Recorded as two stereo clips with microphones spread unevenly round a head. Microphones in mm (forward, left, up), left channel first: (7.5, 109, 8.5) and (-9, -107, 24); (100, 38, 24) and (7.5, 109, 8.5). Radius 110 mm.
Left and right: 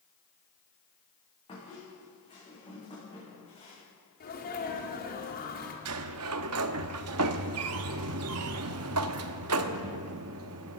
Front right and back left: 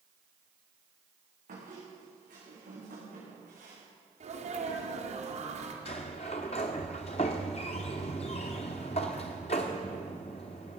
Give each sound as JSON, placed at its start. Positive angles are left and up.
{"t": 1.5, "sound": "a squeak", "azimuth_deg": 155, "distance_m": 7.5}
{"t": 4.2, "sound": "a sneeze", "azimuth_deg": 135, "distance_m": 3.0}
{"t": 5.8, "sound": "a sliding door", "azimuth_deg": -90, "distance_m": 0.7}